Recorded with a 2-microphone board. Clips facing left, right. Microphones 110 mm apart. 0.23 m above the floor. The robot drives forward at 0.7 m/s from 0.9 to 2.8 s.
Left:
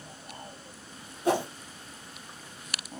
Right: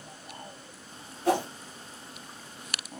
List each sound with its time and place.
1.2 s a whoosh: 20° left (ahead or behind), 2 m